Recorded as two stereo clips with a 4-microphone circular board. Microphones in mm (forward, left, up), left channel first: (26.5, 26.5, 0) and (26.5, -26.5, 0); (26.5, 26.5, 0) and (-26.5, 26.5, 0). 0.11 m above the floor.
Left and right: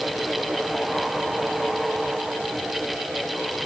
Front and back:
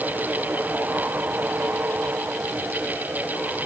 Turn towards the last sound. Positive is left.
No sound to turn to.